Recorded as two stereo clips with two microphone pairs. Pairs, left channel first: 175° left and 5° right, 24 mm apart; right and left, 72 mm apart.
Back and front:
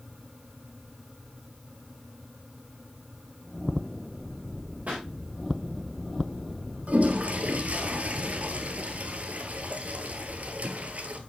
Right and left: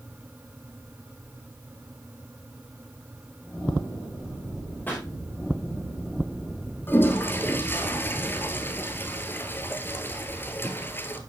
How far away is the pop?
About 6 m.